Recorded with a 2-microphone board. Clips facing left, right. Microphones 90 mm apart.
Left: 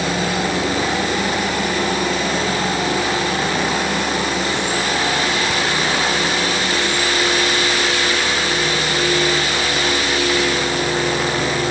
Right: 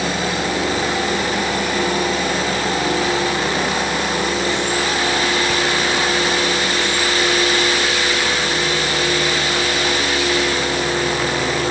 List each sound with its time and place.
Only background noise.